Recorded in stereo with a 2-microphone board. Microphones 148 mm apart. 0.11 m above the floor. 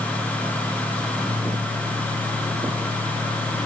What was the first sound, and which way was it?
Only background noise.